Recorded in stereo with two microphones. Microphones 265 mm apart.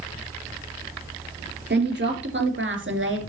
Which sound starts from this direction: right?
A woman speaking, at 1.7 s.